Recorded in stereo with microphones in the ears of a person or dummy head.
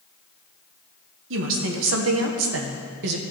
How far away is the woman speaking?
About 1.8 m.